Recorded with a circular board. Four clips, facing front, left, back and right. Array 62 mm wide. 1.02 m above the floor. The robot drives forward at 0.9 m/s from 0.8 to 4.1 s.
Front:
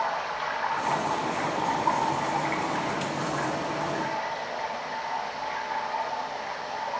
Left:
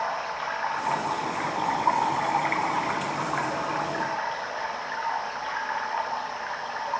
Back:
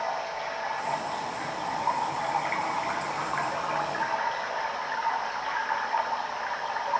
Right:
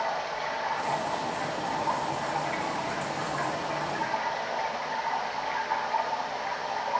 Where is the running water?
50° left, 2 m; by 7.0 s 140° left, 2.5 m.